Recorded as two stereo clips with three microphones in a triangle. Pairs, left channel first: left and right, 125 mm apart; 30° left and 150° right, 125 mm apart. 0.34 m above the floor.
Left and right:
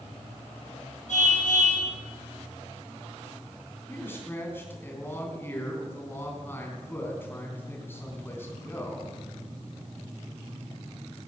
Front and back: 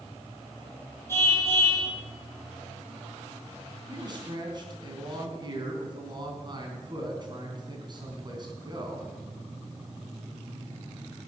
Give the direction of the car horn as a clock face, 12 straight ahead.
9 o'clock.